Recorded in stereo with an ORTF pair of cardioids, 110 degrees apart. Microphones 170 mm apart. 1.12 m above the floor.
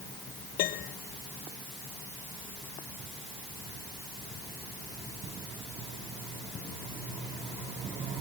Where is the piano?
65° left.